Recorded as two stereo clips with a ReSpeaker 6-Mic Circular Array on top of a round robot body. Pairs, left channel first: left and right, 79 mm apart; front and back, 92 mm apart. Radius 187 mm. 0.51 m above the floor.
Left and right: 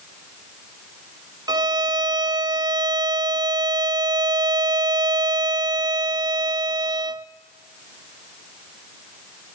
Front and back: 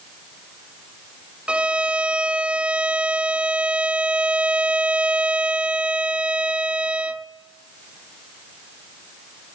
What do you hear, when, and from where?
1.5 s a violin: 105° right, 0.8 m